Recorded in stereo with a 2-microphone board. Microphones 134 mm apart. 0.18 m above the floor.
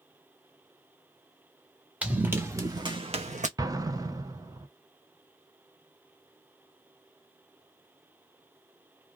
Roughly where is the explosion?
Right.